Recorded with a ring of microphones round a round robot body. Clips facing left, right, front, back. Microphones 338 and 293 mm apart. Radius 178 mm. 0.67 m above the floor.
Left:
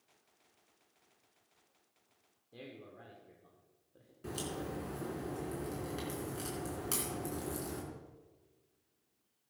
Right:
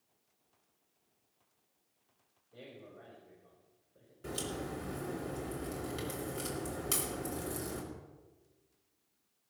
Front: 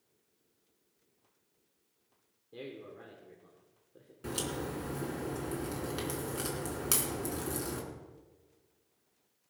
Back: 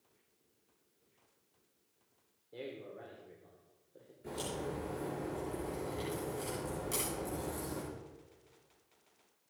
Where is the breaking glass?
No breaking glass in this recording.